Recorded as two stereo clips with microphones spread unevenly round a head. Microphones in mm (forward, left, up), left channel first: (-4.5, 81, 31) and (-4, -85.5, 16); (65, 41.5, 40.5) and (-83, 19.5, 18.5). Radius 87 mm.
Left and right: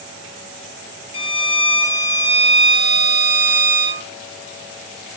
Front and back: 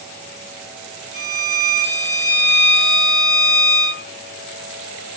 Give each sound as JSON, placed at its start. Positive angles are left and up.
{"t": 1.1, "sound": "a violin", "azimuth_deg": 35, "distance_m": 5.0}